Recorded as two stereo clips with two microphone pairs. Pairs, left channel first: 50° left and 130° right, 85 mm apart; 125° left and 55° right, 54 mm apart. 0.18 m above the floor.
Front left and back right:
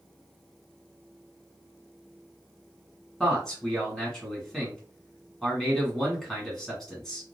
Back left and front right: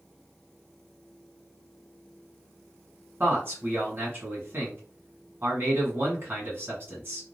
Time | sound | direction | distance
3.2 | a man speaking | 35° right | 1.6 m